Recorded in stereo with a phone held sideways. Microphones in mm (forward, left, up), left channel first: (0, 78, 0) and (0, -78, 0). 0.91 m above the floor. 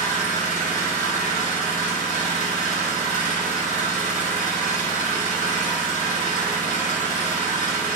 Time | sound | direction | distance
0.0 | an engine running | 55° left (ahead or behind) | 0.9 m